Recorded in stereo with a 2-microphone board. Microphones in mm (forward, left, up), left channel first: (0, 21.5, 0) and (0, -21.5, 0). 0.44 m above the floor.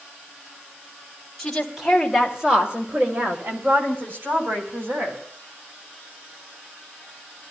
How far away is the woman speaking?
About 2.5 m.